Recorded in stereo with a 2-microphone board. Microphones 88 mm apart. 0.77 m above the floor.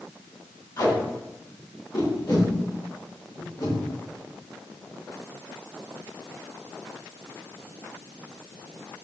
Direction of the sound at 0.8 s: 55° left (ahead or behind).